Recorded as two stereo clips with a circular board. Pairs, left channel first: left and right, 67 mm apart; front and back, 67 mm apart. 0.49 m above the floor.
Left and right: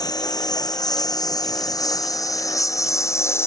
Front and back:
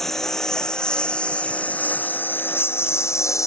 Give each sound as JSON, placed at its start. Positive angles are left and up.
{"t": 0.0, "sound": "a lawn mower", "azimuth_deg": 85}